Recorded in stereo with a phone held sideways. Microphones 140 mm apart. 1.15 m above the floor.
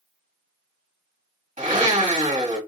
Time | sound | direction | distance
1.6 | a blender | 60° right (ahead or behind) | 1.8 m